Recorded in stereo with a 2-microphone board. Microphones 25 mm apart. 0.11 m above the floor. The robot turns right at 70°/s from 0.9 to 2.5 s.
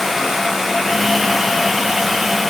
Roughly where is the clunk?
No clunk in this recording.